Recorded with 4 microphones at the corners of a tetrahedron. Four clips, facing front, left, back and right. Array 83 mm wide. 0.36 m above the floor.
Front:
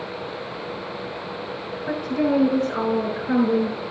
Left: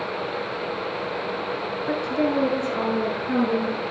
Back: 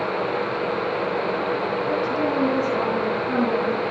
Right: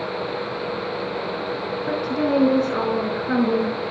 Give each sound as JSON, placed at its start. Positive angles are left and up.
{"t": 1.9, "sound": "a woman speaking", "azimuth_deg": -55, "distance_m": 5.5}